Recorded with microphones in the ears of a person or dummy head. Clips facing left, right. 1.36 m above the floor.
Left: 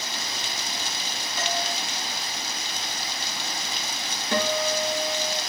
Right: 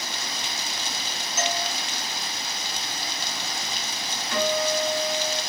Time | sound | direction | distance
1.4 | a doorbell | centre (ahead or behind) | 1.5 m
4.3 | a guitar | 35° left (ahead or behind) | 4.5 m